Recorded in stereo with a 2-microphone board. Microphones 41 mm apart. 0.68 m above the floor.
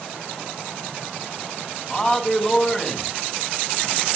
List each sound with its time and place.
1.9 s a man speaking: 20° left (ahead or behind), 5.5 m